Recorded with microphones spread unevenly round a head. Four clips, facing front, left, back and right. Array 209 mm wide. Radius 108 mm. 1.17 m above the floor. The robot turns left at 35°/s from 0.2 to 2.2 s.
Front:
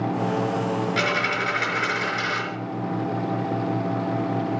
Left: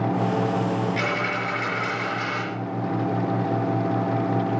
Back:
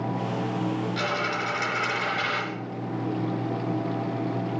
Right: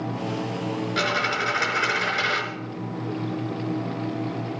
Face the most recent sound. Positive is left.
turn(degrees=-80)